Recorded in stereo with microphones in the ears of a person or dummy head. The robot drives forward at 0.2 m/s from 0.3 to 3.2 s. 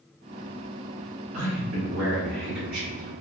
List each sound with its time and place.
1.3 s a man speaking: 65° right (ahead or behind), 1.5 m; by 3.1 s 55° right (ahead or behind), 1.7 m